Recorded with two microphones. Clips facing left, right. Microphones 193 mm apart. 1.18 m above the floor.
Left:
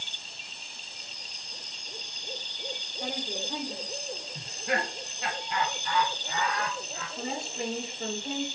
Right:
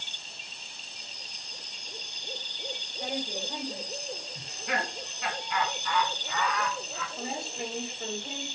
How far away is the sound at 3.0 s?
About 1.7 m.